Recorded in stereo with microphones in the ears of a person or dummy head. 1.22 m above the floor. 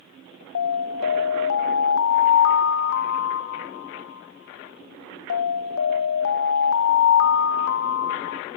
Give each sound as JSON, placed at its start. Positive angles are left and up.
{"t": 0.6, "sound": "an alarm", "side_deg": 65, "distance_m": 0.6}